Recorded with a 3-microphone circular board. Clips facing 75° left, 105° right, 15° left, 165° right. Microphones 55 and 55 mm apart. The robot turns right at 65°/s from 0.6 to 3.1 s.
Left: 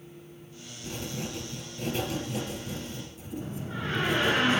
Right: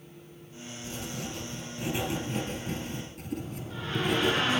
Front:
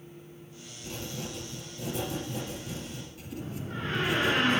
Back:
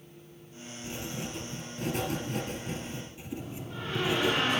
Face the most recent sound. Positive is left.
turn(degrees=35)